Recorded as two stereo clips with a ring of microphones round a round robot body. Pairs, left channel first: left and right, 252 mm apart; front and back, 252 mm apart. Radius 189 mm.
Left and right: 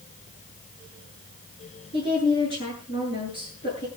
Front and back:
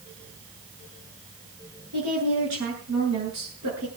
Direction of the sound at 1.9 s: 150° left.